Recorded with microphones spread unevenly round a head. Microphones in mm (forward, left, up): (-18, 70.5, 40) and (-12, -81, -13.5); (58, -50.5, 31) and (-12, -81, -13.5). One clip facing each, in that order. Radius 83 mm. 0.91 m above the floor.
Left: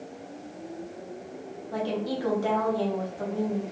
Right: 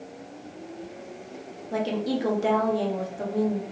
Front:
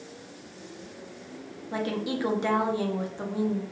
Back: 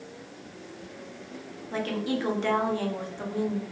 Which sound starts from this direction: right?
A woman speaking, at 1.7 s.